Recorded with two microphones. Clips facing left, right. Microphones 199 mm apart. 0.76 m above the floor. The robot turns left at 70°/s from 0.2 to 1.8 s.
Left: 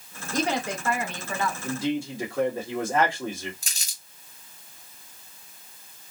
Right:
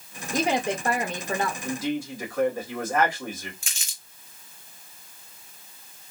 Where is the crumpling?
40° left (ahead or behind), 1.0 m.